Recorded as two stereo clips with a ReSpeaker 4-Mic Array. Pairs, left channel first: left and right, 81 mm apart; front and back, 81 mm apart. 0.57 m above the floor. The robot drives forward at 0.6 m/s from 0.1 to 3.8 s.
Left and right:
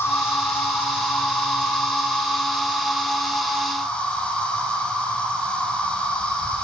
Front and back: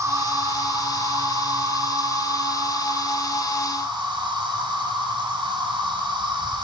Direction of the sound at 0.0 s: 145° left.